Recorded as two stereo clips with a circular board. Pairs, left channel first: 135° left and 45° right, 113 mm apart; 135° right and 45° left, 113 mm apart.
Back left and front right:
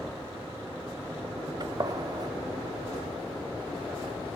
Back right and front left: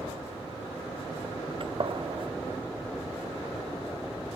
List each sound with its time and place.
1.6 s a gunshot: 5° left, 0.6 m